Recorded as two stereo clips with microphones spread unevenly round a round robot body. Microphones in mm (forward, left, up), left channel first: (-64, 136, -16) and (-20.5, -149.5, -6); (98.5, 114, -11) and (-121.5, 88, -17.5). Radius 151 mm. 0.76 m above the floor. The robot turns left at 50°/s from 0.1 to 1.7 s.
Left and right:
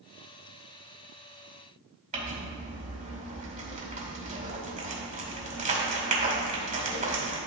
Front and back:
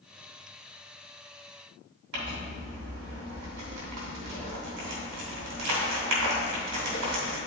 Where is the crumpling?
145° right, 2 m.